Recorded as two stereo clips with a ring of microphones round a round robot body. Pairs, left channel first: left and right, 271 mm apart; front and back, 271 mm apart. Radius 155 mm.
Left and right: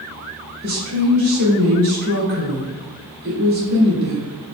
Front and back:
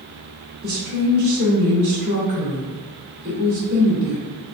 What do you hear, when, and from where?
0.6 s a woman speaking: 125° right, 1.7 m